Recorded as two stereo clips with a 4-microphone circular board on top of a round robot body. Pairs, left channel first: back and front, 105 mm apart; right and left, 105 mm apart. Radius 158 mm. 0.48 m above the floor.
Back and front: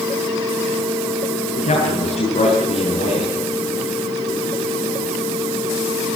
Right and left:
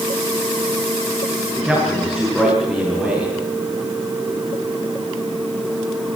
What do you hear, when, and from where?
1.6 s a man speaking: straight behind, 7.5 m